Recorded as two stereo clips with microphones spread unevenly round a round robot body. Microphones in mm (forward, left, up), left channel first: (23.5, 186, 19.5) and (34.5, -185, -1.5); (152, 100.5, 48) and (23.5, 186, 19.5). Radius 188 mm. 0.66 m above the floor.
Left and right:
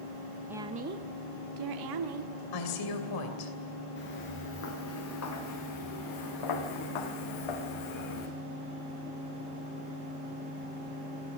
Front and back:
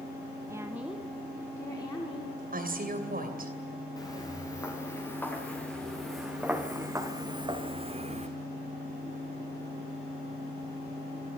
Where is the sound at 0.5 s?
170° right, 0.7 m; by 2.3 s 105° right, 1.6 m.